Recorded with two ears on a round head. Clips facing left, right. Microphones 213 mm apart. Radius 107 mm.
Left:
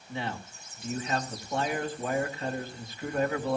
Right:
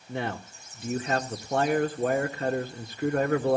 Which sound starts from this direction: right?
A man speaking, at 0.1 s.